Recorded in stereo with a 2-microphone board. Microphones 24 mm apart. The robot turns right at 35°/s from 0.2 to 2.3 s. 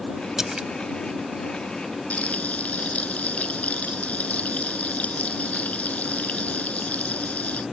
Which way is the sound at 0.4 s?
20° right (ahead or behind).